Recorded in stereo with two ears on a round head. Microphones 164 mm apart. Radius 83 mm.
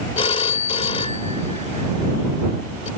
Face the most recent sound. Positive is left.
turn(degrees=35)  # may be behind; listen again after turning